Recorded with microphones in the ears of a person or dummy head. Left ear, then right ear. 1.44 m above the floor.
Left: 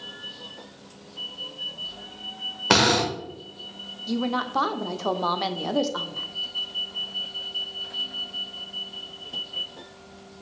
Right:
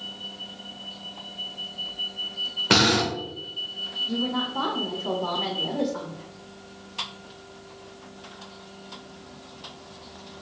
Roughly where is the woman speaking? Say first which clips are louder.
Left 1 dB; left.